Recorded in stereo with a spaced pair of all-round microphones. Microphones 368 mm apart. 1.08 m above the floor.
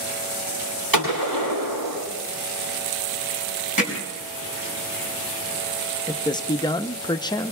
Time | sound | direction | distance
0.9 | a gunshot | 65° right (ahead or behind) | 7.5 m
3.8 | hammering | 60° right (ahead or behind) | 5 m
6.1 | a man speaking | 10° left (ahead or behind) | 0.6 m